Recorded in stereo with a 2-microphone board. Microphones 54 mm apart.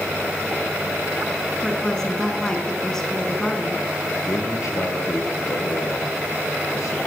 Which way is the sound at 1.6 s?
10° left (ahead or behind).